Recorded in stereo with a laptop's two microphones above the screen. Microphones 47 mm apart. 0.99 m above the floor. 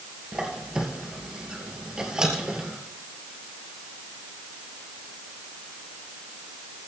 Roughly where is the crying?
No crying in this recording.